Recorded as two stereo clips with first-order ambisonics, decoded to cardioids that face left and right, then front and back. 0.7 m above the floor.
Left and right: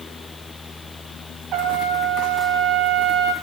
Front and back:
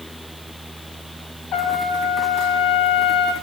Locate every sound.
1.5 s a trumpet: 40° right, 2.5 m